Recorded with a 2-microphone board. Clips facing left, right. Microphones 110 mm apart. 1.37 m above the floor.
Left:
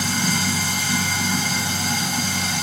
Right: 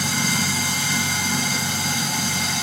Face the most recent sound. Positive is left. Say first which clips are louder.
# left 1 dB
turn(degrees=25)  # may be behind; listen again after turning